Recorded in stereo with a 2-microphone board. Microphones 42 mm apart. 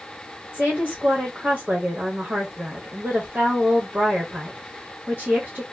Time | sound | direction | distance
0.5 | a woman speaking | 50° right (ahead or behind) | 1.1 m